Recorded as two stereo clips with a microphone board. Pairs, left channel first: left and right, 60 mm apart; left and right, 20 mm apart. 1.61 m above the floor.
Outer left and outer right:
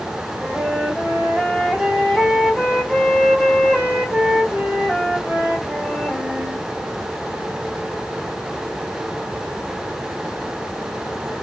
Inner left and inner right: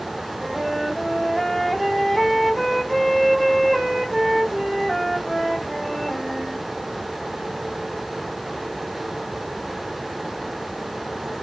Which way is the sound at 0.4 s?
10° right (ahead or behind).